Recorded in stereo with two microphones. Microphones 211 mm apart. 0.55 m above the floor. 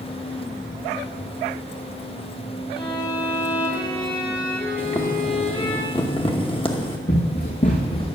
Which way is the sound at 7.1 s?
55° left (ahead or behind).